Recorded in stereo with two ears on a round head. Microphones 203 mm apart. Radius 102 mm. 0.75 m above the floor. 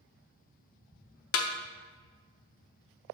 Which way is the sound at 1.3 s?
65° left (ahead or behind).